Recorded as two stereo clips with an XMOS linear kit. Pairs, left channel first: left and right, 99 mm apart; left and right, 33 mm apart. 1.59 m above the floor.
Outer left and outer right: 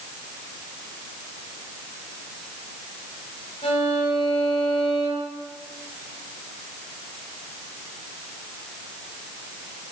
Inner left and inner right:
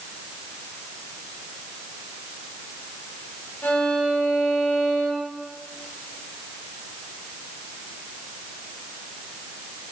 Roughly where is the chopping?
No chopping in this recording.